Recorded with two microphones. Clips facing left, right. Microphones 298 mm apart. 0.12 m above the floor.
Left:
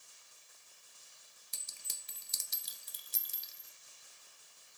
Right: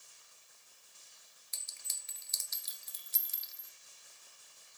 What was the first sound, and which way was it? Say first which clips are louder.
A clink: left 1 dB; 40° left (ahead or behind).